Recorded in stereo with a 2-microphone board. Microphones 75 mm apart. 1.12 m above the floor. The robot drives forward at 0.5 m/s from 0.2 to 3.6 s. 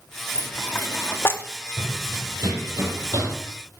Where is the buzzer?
No buzzer in this recording.